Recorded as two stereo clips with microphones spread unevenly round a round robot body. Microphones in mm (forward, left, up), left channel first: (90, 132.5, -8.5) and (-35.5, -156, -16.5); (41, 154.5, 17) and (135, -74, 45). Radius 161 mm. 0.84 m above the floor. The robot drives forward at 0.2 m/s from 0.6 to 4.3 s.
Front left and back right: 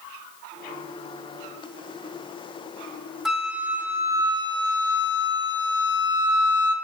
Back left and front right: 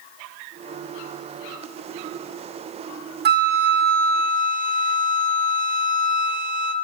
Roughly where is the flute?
Ahead right.